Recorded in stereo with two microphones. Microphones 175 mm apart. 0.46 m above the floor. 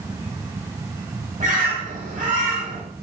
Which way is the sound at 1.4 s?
50° right (ahead or behind).